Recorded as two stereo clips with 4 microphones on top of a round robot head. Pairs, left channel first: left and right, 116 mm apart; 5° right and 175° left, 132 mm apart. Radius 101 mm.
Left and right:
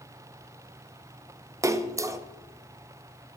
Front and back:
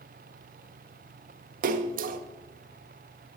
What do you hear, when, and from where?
1.6 s a splash: 155° right, 0.8 m